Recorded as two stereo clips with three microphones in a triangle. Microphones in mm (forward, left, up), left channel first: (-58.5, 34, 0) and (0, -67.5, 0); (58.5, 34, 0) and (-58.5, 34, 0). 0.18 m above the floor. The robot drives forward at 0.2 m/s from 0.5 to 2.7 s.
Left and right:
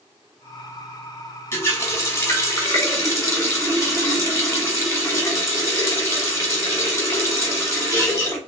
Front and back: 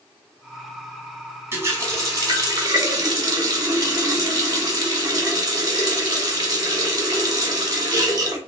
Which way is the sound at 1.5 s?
155° left.